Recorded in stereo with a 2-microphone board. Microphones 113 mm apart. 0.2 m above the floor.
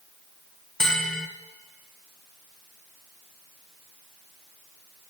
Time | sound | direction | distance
0.8 | a bell | 5° left (ahead or behind) | 1.2 m